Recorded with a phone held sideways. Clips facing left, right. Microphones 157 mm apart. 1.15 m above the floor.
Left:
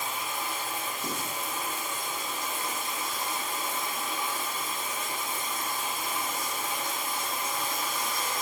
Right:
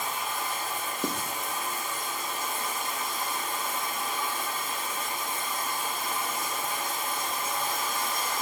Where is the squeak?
No squeak in this recording.